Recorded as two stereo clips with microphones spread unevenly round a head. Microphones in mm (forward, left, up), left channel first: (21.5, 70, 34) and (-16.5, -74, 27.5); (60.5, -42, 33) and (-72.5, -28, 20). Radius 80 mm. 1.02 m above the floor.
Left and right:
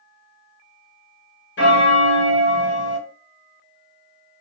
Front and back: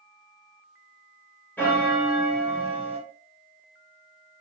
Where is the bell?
75° left, 0.6 m.